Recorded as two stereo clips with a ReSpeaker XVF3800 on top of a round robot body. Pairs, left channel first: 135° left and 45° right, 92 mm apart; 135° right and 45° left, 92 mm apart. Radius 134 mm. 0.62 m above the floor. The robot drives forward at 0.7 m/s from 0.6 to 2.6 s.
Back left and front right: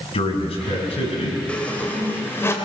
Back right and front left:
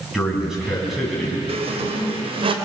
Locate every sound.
0.1 s a man speaking: 130° left, 5.5 m; by 1.4 s 135° left, 5.5 m
1.5 s a squeak: 55° left, 3 m; by 2.5 s 70° left, 2.5 m